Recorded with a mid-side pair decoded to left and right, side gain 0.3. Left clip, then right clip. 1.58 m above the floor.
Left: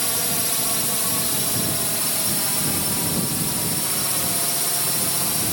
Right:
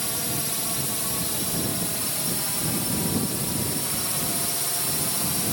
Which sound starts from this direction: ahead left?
A drone, at 0.0 s.